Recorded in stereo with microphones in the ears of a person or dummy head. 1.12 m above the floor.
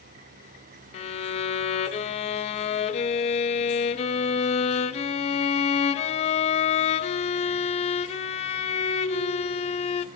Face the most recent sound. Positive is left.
turn(degrees=30)  # may be behind; listen again after turning